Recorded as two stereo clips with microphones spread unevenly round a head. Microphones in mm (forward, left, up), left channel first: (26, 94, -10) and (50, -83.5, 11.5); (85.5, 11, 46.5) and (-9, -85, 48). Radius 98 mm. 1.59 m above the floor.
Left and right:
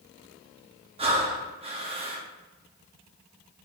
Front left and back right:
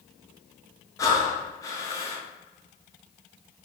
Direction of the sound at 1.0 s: 20° right.